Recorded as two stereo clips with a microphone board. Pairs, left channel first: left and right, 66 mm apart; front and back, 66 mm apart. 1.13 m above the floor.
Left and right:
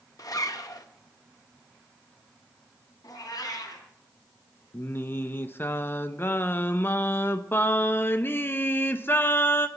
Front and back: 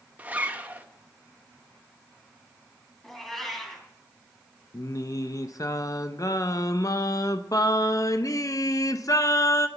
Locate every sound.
0.2 s a zipper: 115° left, 0.9 m
3.0 s a cat meowing: 85° left, 2.5 m
4.7 s singing: 30° left, 0.6 m